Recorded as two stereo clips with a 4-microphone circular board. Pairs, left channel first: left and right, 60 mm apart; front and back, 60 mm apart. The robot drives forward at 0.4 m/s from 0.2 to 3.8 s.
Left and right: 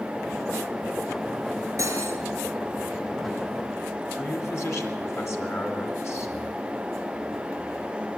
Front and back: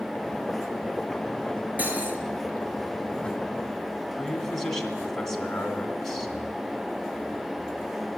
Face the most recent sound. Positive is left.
turn(degrees=80)